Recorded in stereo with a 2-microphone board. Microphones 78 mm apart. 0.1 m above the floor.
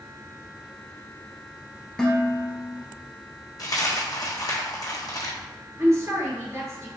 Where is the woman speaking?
35° right (ahead or behind), 1.4 m.